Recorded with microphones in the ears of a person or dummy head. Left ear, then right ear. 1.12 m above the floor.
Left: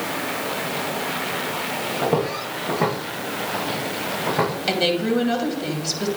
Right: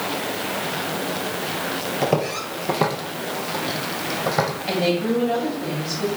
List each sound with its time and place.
2.0 s footsteps: 45° right (ahead or behind), 1.5 m; by 4.5 s 70° right (ahead or behind), 3 m
4.7 s a woman speaking: 60° left (ahead or behind), 2.5 m